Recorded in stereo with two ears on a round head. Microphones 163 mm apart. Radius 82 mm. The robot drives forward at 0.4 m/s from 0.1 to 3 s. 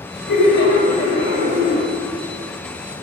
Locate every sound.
0.3 s laughter: 65° left (ahead or behind), 2.5 m